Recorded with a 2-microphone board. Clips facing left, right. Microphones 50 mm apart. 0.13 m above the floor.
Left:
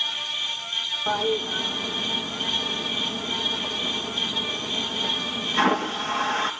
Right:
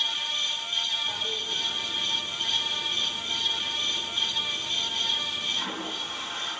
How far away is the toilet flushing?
About 4 m.